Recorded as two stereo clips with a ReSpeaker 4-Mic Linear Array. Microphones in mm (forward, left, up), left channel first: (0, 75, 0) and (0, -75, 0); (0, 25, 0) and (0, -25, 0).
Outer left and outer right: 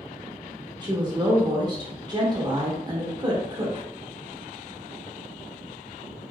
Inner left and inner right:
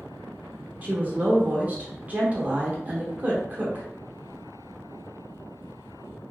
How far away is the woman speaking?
About 0.9 m.